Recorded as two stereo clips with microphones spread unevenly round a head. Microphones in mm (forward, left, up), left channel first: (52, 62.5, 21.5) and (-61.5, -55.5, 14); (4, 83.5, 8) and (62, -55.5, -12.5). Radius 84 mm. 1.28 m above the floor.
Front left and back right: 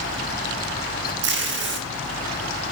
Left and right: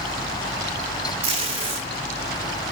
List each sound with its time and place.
1.2 s tape being pulled: 125° right, 1.2 m